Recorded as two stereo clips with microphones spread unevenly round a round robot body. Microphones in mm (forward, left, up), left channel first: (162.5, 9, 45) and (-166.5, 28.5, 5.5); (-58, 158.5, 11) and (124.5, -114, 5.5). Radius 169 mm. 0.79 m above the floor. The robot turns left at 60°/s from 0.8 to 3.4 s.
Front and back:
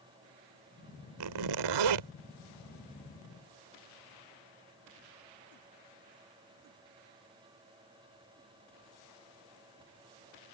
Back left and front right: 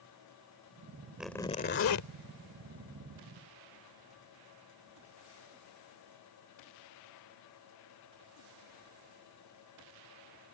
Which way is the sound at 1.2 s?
145° right.